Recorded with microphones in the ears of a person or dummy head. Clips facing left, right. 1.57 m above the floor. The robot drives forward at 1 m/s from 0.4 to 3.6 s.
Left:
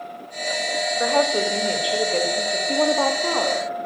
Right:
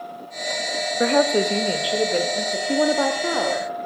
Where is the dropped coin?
No dropped coin in this recording.